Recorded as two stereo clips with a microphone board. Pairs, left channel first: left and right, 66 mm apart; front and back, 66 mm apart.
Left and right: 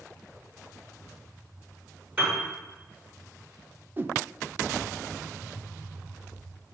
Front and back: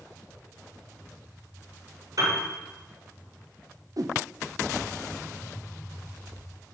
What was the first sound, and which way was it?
A piano, 150° right.